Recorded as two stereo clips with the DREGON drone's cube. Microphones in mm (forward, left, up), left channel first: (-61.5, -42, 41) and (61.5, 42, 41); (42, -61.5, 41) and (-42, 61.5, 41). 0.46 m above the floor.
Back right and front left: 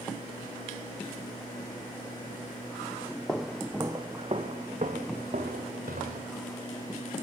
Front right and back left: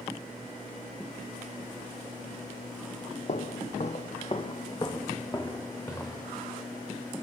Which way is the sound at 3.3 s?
65° right.